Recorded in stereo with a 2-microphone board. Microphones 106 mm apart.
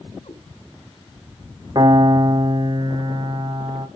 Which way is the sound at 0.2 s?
85° left.